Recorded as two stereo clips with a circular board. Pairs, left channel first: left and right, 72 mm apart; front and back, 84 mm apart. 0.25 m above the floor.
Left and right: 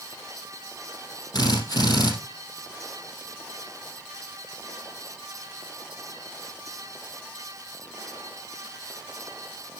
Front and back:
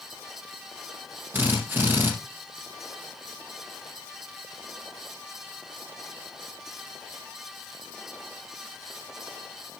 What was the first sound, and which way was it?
A drill, 115° left.